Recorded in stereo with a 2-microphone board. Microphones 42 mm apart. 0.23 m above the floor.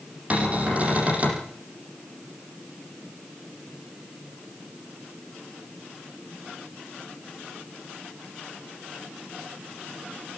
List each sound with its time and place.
0.3 s a cupboard door: 35° right (ahead or behind), 7 m